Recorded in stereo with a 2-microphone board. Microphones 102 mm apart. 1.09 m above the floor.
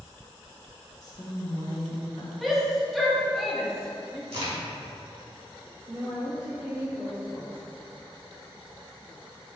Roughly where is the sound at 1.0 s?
Left.